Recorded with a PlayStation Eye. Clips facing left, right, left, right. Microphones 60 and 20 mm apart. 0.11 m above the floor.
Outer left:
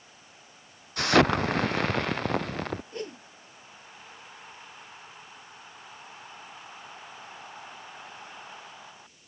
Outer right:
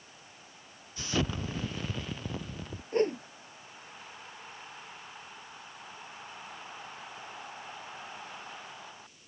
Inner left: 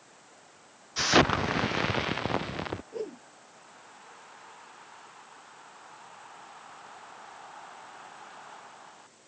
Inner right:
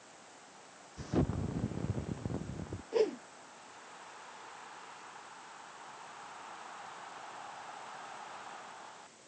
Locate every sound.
1.0 s an explosion: 70° left (ahead or behind)
2.9 s a whoosh: 40° right (ahead or behind)